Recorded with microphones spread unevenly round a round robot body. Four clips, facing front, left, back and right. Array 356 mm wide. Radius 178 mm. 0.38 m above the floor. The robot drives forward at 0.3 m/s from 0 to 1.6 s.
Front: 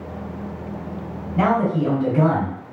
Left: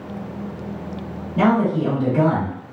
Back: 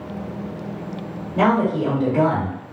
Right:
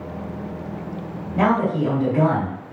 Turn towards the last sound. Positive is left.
turn(degrees=-170)